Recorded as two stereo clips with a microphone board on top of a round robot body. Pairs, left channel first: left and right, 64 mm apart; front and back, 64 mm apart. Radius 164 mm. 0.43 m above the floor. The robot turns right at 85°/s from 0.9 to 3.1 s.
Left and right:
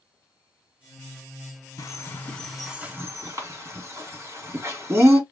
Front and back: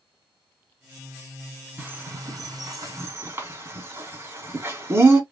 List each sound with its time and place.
1.8 s a bird: 115° left, 3 m; by 5.2 s 135° right, 3 m